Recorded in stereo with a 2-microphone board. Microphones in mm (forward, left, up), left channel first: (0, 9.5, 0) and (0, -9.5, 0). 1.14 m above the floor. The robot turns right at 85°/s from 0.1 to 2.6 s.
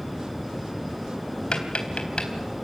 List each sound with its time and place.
1.5 s tapping: 55° left (ahead or behind), 3.5 m